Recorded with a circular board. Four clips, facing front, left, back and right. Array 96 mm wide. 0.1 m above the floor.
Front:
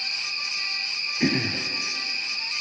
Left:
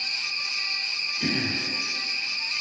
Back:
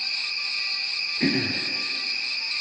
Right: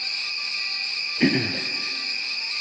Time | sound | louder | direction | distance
0.0 | an insect | even, front 1 dB | 90° right | 2 m
1.2 | throat clearing | right 7 dB, even | 85° right | 0.5 m